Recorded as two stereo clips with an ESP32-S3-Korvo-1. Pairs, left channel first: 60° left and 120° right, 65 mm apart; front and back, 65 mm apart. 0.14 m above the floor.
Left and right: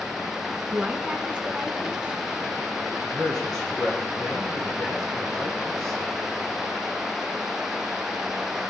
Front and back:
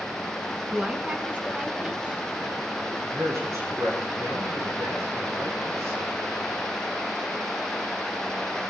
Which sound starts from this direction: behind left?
A man speaking, at 2.9 s.